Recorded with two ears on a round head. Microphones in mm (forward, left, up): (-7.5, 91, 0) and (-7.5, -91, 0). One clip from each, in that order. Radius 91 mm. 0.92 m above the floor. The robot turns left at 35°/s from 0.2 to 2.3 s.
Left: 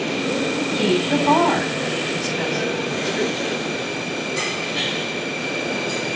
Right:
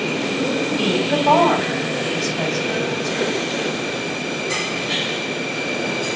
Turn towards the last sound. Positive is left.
turn(degrees=-30)  # may be behind; listen again after turning